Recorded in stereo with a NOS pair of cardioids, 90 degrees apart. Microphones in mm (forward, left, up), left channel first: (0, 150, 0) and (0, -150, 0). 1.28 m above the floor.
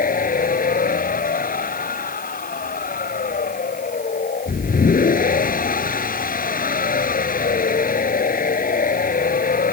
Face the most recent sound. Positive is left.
turn(degrees=30)